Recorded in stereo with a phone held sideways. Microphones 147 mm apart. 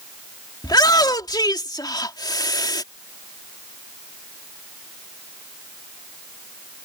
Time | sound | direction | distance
0.6 | a shout | 25° left (ahead or behind) | ?